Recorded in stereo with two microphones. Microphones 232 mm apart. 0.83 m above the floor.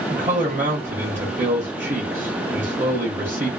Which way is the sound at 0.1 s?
35° right (ahead or behind).